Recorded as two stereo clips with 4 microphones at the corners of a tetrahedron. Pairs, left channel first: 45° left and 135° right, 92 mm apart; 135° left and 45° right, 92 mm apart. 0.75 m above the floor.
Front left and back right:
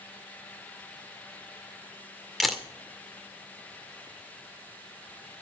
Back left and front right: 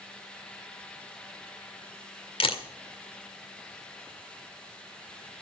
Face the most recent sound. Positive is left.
turn(degrees=135)